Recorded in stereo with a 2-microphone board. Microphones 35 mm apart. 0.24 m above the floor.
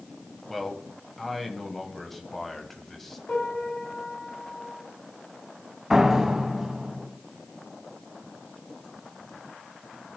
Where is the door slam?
15° right (ahead or behind), 1.4 m.